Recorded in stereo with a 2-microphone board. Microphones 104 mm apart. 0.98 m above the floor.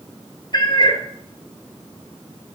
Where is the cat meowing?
50° left (ahead or behind), 0.8 m.